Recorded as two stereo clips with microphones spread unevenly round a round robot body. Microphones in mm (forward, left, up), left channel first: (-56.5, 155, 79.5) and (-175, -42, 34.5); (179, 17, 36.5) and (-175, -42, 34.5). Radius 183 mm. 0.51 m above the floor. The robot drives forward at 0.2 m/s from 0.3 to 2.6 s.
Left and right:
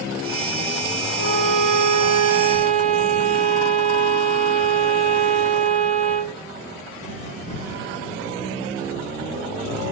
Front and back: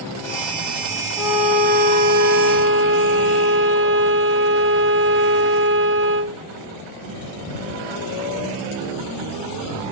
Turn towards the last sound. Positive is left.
turn(degrees=-115)